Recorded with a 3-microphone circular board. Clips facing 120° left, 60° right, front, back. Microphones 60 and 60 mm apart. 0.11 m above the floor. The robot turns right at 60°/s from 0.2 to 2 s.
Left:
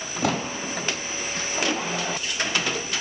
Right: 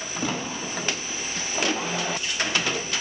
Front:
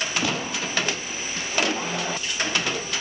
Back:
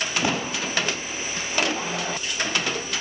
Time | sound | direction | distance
0.2 | a pop | 115° left | 0.6 m